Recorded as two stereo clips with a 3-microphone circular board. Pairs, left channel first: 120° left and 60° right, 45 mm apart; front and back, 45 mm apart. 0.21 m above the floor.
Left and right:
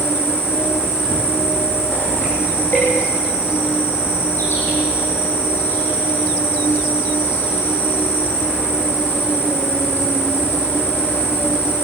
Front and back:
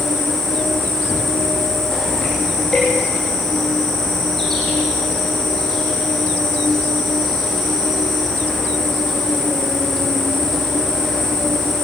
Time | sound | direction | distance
0.0 | an insect | 85° left | 9.5 m